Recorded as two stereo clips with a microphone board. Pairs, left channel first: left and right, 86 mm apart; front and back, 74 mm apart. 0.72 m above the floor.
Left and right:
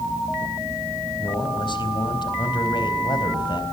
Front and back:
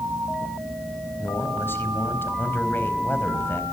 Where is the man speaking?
60° left, 4 m.